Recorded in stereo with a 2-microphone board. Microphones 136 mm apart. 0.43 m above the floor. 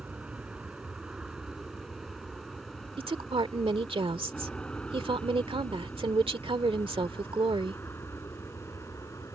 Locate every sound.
0.0 s an aircraft: 10° right (ahead or behind); by 9.4 s 20° left (ahead or behind)
3.0 s a woman speaking: 40° right (ahead or behind)